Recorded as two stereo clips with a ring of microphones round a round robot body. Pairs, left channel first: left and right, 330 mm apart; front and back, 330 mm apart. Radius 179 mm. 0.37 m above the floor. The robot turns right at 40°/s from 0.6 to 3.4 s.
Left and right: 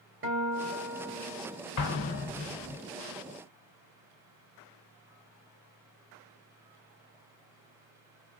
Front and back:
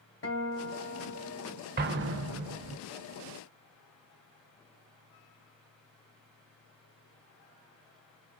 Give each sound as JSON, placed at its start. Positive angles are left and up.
{"t": 0.2, "sound": "a guitar", "azimuth_deg": -45, "distance_m": 2.5}
{"t": 1.8, "sound": "an explosion", "azimuth_deg": 120, "distance_m": 0.6}